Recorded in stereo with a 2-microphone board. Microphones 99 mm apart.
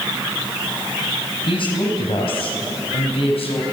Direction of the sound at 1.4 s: 60° left (ahead or behind).